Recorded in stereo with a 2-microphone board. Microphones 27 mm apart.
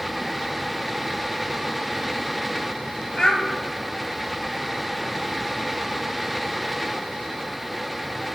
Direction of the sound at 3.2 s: 35° left (ahead or behind).